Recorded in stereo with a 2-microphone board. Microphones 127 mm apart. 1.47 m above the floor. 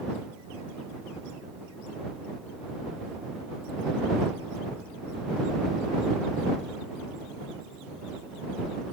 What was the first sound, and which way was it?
Only background noise.